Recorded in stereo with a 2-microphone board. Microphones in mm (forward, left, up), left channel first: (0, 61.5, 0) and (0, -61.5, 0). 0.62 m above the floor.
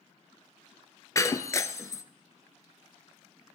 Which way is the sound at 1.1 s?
25° left (ahead or behind).